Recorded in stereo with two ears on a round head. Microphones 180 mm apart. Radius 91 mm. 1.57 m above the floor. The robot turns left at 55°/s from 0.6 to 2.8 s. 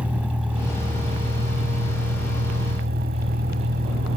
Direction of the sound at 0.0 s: 5° right.